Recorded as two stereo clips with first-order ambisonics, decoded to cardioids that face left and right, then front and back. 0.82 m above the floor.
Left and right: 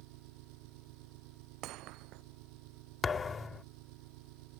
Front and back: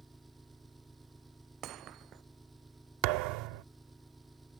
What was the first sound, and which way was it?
An engine running, 95° right.